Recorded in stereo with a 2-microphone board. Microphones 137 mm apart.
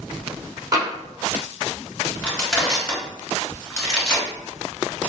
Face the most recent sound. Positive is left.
turn(degrees=15)  # may be behind; listen again after turning